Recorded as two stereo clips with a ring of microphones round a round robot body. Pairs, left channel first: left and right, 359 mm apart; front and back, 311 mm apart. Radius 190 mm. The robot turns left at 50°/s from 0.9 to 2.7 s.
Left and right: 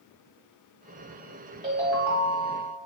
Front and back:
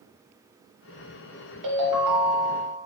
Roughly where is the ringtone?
Behind.